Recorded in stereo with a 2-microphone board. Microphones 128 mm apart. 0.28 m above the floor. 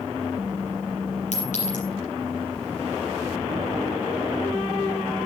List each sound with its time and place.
1.3 s a clink: 80° left, 6 m